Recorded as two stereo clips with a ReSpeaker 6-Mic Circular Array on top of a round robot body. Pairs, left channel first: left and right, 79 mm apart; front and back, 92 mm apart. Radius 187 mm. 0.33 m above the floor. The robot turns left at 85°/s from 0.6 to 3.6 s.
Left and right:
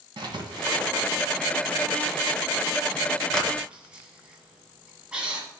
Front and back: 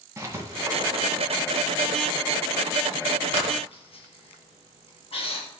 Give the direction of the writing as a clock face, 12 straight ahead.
4 o'clock.